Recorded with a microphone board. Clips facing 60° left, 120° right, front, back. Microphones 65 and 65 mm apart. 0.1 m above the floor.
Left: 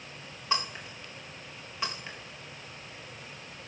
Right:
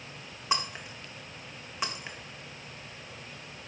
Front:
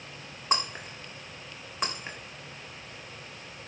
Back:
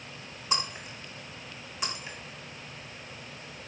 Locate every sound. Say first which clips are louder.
0.5 s breaking glass: right 1 dB, front 3 dB; 45° right, 1.6 m